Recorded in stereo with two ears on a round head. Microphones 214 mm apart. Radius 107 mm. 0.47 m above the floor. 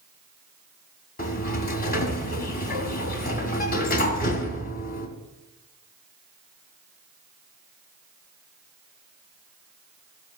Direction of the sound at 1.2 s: 40° left (ahead or behind).